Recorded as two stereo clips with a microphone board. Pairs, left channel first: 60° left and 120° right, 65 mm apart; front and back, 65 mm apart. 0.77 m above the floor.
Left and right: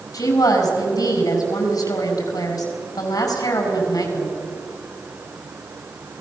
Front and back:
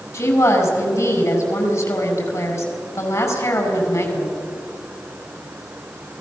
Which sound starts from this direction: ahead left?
A woman speaking, at 0.1 s.